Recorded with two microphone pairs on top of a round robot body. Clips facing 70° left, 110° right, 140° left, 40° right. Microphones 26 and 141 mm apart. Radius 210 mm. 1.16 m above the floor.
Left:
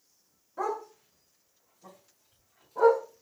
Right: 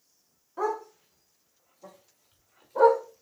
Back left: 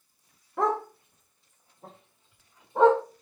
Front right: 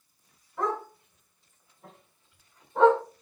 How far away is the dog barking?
About 1.5 m.